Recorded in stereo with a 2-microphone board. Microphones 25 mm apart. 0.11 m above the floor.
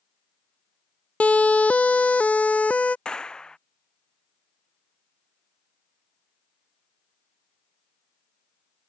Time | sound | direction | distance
1.2 | a siren | 70° left (ahead or behind) | ?
3.0 | a clap | 35° left (ahead or behind) | ?